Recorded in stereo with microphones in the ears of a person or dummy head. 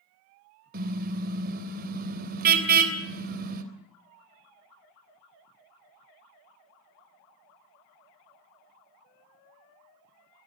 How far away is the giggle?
I don't hear a giggle.